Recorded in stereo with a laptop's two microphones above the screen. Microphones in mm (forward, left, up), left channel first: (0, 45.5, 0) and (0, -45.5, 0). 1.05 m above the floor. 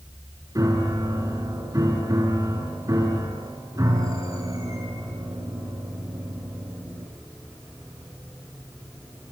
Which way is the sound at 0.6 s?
35° right (ahead or behind).